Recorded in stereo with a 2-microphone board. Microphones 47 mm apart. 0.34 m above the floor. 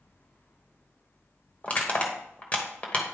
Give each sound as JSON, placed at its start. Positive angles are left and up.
{"t": 1.6, "sound": "crushing", "side_deg": 30, "distance_m": 1.1}